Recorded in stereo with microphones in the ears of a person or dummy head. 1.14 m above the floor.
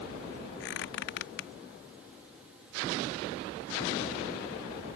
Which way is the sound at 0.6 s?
70° left (ahead or behind).